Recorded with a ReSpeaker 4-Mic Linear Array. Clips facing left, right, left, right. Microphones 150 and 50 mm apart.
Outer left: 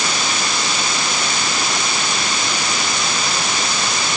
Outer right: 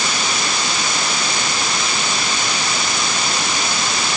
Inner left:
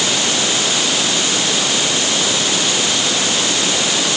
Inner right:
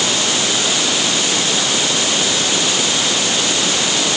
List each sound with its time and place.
Only background noise.